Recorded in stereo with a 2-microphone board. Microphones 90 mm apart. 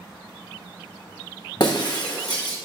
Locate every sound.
1.6 s breaking glass: 50° left (ahead or behind), 0.8 m